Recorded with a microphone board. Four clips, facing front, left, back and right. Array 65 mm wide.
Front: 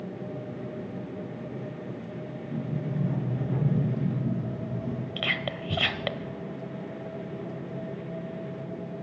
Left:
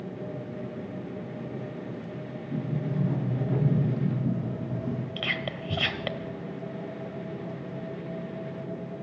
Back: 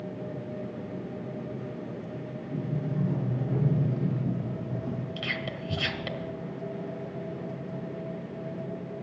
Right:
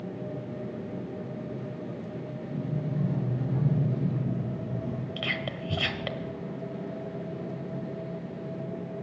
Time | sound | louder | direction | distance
2.5 | a sliding door | left 2 dB, even | 75° left | 8 m
5.2 | whispering | left 1 dB, front 3 dB | 15° left | 1.1 m